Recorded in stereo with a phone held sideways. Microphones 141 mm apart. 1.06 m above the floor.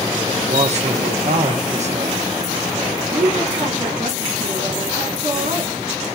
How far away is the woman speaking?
About 3.5 m.